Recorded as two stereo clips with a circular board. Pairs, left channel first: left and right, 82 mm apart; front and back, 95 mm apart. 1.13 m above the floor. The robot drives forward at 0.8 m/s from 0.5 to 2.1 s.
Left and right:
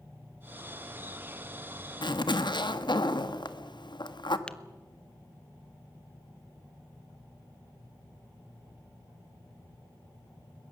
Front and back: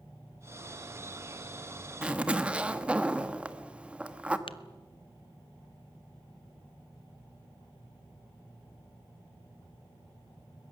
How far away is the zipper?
About 1.2 m.